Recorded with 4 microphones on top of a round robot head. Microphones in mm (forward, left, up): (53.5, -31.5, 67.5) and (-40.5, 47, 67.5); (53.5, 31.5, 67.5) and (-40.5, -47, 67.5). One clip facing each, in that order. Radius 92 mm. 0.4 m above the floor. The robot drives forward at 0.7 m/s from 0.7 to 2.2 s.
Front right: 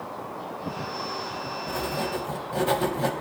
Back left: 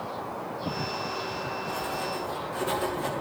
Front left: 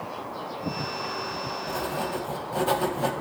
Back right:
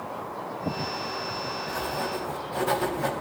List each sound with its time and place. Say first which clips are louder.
1.7 s writing: front right 5 dB, front left 2 dB; 25° right, 3.5 m